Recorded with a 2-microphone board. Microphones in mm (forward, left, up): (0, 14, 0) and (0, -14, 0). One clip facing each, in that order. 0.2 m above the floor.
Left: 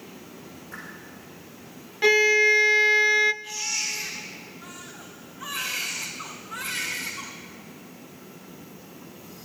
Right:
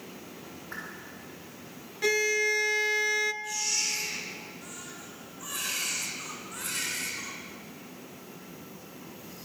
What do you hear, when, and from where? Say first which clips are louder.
0.7 s a whoosh: right 1 dB; 35° right (ahead or behind), 8.5 m
2.0 s a violin: left 8 dB; 30° left (ahead or behind), 0.6 m
3.4 s a baby crying: left 1 dB; 30° left (ahead or behind), 7 m